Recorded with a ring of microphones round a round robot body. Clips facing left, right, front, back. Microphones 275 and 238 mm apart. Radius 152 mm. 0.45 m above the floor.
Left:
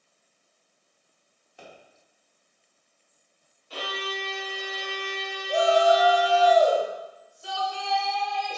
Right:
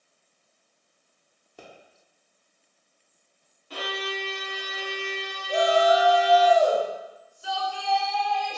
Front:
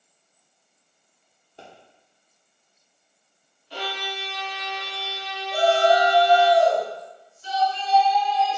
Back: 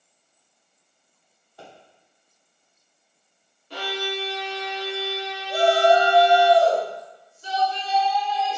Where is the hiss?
I don't hear a hiss.